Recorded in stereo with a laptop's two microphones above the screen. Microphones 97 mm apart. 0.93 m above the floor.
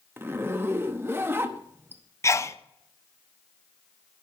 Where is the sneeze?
30° left (ahead or behind), 0.5 m.